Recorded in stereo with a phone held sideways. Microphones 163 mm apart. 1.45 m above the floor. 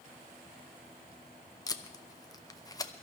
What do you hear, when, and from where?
1.7 s tape being pulled: 20° left (ahead or behind), 0.8 m